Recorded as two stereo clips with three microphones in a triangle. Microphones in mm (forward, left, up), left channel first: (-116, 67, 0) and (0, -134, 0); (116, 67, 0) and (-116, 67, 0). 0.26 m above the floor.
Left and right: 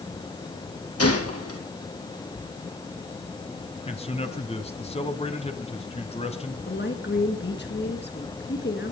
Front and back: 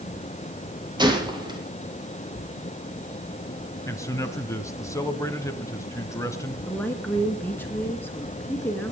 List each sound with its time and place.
1.0 s a gunshot: 110° left, 4 m
3.9 s a man speaking: 70° left, 1.5 m
6.7 s a woman speaking: 80° left, 3.5 m